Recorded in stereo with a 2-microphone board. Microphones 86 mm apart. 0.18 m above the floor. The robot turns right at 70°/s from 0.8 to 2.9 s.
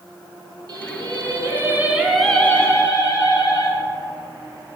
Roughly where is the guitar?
No guitar in this recording.